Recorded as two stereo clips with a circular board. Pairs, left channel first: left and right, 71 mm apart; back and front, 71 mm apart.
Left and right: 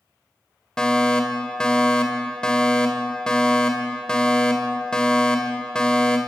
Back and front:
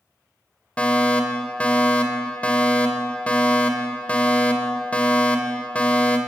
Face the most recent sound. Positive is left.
turn(degrees=150)